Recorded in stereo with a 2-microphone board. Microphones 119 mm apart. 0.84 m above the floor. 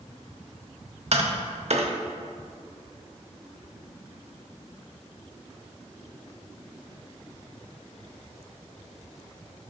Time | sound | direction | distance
1.1 | tapping | 65° right (ahead or behind) | 0.8 m